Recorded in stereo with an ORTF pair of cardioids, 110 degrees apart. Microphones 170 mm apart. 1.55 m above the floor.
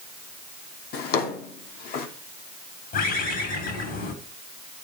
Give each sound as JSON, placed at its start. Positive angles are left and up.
{"t": 0.9, "sound": "a drawer", "azimuth_deg": 70, "distance_m": 2.5}
{"t": 2.9, "sound": "a bird", "azimuth_deg": 60, "distance_m": 8.5}